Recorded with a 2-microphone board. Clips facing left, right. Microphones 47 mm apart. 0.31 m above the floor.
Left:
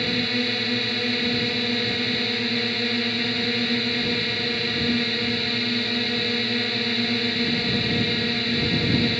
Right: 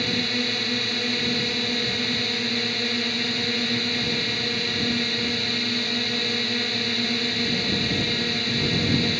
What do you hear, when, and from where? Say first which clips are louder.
0.0 s a drone: left 1 dB; 5° left (ahead or behind)